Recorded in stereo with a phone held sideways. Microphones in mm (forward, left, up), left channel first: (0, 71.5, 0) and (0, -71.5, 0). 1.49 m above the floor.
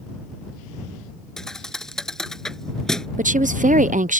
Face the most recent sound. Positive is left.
turn(degrees=-65)  # may be behind; listen again after turning